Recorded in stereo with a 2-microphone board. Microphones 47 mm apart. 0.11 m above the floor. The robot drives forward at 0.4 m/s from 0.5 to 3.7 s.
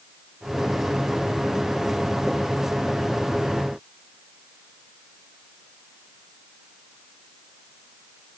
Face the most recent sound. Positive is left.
No sound to turn to.